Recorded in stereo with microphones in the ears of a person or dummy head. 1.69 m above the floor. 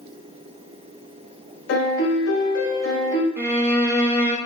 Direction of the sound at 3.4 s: 10° right (ahead or behind).